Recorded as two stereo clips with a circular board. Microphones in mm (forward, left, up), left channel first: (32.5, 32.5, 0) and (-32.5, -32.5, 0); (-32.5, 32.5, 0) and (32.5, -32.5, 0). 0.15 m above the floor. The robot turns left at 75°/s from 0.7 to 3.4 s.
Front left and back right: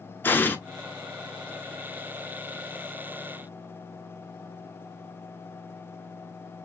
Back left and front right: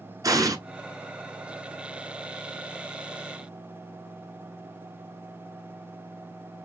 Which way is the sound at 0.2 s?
15° right.